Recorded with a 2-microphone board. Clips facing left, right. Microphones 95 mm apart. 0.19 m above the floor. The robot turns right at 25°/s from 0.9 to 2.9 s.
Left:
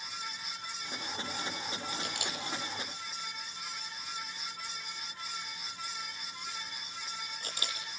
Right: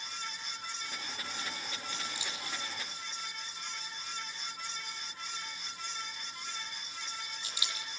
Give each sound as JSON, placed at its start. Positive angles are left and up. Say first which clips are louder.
{"t": 2.0, "sound": "a camera shutter", "louder": "left 3 dB", "side_deg": 65, "distance_m": 8.0}